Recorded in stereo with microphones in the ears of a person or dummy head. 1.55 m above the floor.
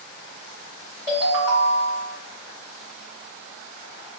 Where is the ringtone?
20° right (ahead or behind), 1.4 m.